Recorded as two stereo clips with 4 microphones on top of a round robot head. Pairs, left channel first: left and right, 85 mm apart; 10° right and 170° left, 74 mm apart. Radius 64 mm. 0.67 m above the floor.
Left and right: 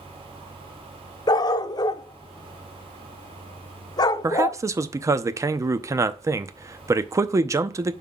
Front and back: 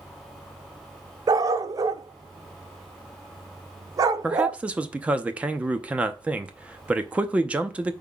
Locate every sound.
1.3 s a dog barking: 135° left, 0.6 m
4.2 s a man speaking: 125° right, 0.7 m